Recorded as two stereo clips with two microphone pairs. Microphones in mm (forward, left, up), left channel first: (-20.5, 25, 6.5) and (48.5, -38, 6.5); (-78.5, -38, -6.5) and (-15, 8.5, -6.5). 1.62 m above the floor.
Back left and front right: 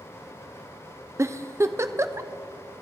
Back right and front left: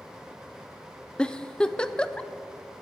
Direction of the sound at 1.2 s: 80° right.